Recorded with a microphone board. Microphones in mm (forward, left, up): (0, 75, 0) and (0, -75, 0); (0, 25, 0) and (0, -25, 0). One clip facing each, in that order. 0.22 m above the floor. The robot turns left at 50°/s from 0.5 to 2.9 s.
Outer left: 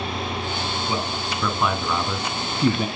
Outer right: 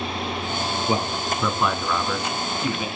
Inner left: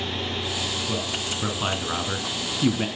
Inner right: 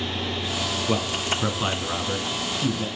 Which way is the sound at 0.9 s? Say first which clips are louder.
Outer right 3 dB, inner right 4 dB; 30° right (ahead or behind).